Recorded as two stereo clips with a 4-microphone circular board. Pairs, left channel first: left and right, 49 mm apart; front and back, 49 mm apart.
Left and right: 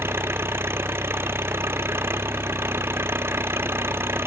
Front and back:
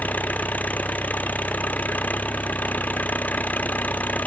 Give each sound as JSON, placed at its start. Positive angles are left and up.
{"t": 0.0, "sound": "an engine running", "azimuth_deg": -55}